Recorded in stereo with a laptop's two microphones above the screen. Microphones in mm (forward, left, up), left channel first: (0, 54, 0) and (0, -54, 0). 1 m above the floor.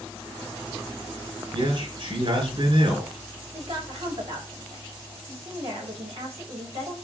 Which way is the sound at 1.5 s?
55° right (ahead or behind).